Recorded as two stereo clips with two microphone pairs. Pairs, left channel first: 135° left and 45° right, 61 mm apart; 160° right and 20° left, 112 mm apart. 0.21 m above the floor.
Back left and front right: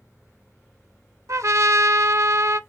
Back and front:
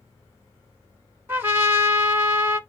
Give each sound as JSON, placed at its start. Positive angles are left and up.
{"t": 1.3, "sound": "a trumpet", "azimuth_deg": -45, "distance_m": 0.6}